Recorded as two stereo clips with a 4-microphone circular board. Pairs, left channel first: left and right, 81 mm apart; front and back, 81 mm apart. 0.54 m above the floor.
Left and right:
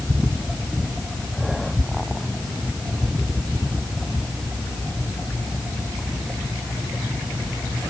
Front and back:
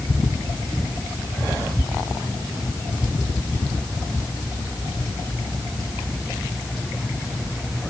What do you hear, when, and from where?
Only background noise.